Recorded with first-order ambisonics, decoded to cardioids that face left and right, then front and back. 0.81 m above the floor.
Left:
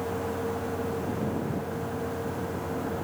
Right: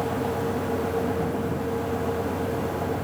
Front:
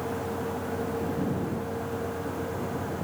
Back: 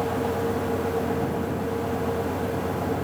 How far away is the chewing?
No chewing in this recording.